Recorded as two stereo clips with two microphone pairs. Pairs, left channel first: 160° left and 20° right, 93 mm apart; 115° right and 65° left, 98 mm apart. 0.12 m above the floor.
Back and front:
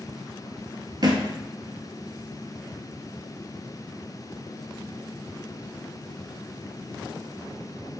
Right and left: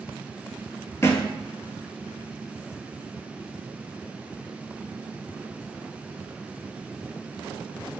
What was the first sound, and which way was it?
A thud, 55° right.